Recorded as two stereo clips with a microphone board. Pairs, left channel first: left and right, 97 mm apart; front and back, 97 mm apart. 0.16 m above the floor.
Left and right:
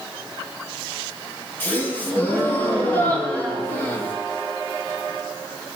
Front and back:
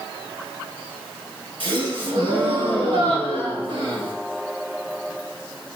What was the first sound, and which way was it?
A gasp, 160° left.